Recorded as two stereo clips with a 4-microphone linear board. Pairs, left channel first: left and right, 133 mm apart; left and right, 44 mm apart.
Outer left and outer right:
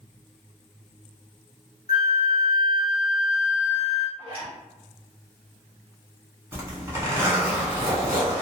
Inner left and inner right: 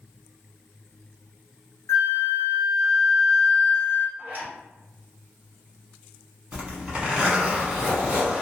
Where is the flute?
85° left, 0.7 m.